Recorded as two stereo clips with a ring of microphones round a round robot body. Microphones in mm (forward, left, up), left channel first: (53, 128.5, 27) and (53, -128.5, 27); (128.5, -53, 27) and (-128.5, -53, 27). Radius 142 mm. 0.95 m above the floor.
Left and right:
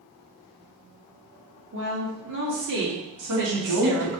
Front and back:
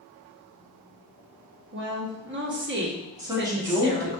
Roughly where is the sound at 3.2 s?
Right.